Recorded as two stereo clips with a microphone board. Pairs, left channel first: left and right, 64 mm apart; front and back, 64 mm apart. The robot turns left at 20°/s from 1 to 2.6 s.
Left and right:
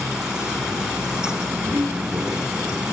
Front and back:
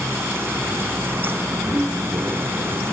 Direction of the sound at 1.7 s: 145° right.